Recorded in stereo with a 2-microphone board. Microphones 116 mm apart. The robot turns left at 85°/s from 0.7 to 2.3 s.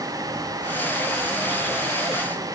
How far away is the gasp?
No gasp in this recording.